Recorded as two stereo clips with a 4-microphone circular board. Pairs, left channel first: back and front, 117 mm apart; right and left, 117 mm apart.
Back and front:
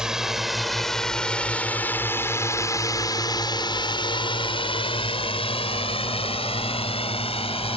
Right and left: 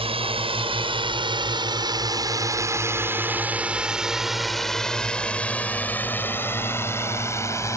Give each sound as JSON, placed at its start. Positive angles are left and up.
{"t": 0.0, "sound": "a drone", "azimuth_deg": 85}